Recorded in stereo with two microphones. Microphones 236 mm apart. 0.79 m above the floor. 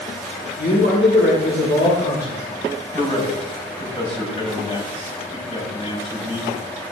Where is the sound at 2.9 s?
25° left (ahead or behind), 4.5 m.